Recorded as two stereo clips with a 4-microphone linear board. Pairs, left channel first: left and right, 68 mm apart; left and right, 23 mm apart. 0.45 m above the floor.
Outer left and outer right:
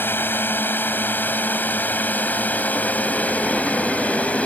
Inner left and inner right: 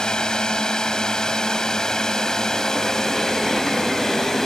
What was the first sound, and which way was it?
A drone, 35° left (ahead or behind).